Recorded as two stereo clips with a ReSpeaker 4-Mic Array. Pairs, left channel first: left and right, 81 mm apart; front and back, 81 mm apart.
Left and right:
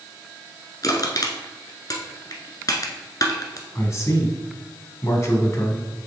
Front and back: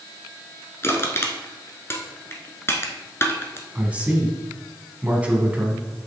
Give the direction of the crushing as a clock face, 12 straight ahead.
10 o'clock.